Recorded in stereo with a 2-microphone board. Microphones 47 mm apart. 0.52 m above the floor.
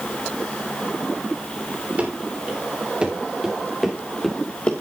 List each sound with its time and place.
2.0 s running footsteps: 35° right (ahead or behind), 5 m; by 4.7 s 25° left (ahead or behind), 2.5 m